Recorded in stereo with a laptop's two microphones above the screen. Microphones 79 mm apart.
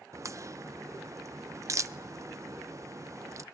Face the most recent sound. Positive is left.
turn(degrees=-40)  # may be behind; listen again after turning